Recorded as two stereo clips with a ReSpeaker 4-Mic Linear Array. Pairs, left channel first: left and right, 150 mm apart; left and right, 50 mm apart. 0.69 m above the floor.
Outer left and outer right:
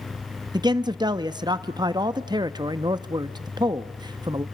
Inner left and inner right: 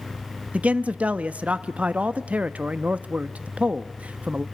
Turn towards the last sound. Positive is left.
turn(degrees=-25)  # may be behind; listen again after turning